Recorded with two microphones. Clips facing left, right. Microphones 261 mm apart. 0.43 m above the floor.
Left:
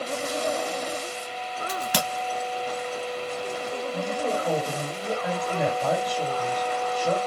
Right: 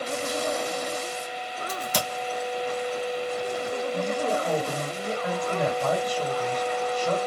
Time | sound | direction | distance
1.7 | a crack | 85° left | 1.3 m
3.9 | a woman speaking | 10° left (ahead or behind) | 2.0 m